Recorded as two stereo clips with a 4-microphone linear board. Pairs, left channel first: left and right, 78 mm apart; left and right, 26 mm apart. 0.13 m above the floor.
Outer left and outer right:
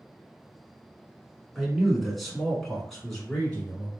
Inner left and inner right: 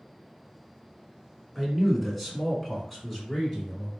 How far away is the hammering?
No hammering in this recording.